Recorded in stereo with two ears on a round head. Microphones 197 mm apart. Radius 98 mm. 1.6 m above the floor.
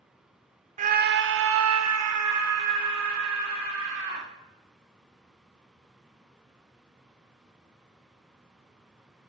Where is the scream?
35° right (ahead or behind), 0.8 m; by 4.3 s 65° right (ahead or behind), 2.5 m.